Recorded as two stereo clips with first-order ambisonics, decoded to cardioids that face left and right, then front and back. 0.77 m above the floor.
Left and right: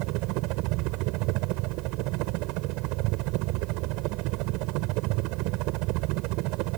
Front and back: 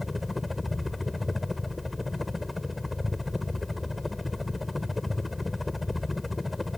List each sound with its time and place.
0.0 s a helicopter: 80° right